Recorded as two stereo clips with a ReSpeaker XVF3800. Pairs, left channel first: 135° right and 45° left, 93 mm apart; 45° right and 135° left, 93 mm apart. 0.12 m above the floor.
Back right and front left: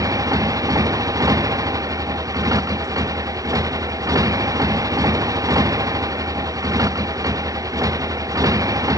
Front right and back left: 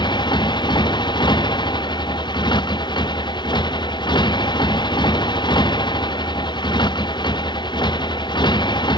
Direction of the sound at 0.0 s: 10° right.